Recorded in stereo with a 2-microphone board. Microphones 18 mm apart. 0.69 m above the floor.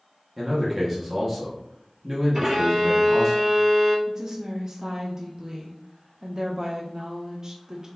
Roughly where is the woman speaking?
Right.